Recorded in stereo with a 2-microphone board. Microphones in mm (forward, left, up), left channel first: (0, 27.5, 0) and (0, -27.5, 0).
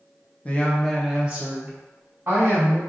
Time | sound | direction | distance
0.5 | a woman speaking | 30° left (ahead or behind) | 0.6 m